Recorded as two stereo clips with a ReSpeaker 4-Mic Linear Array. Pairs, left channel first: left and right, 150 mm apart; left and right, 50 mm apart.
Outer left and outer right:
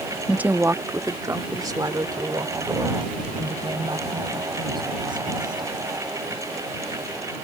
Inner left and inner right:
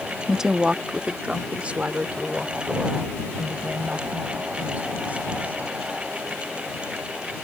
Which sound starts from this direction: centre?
A woman speaking, at 0.3 s.